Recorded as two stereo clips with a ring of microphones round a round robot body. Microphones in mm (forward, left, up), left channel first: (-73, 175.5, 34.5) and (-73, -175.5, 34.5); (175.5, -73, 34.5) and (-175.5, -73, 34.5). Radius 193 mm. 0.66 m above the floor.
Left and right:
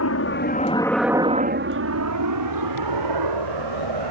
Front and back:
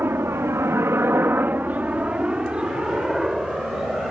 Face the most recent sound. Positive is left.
turn(degrees=-90)